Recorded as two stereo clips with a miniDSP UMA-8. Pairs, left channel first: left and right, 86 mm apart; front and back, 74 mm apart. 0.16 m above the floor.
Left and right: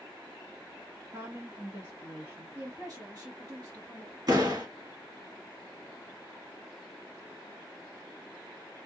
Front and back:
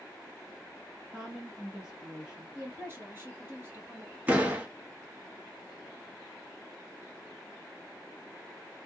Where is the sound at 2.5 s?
130° right, 2.5 m.